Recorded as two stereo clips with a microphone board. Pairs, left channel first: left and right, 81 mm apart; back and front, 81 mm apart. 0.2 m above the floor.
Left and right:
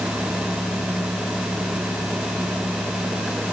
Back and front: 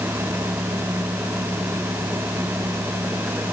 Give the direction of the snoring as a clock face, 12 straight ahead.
I don't hear snoring.